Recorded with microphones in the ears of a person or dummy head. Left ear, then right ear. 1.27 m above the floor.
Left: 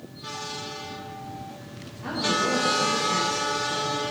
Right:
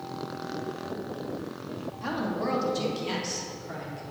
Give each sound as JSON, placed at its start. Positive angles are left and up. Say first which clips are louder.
{"t": 2.0, "sound": "a woman speaking", "louder": "left 6 dB", "side_deg": -85, "distance_m": 2.5}